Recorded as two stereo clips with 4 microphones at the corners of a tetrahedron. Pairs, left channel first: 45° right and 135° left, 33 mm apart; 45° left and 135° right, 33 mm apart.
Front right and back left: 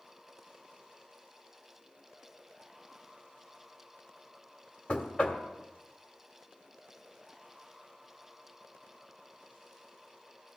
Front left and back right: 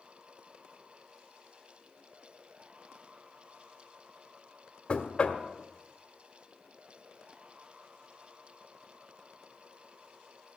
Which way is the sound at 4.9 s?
Straight ahead.